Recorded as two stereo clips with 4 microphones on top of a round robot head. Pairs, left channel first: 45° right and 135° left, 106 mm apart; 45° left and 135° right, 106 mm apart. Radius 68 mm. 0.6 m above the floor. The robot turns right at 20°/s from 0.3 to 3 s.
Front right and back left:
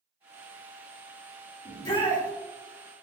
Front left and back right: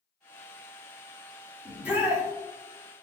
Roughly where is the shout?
Right.